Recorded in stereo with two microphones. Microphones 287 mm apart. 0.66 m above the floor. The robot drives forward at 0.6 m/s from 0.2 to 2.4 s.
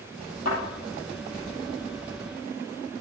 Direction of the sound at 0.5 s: 55° left (ahead or behind).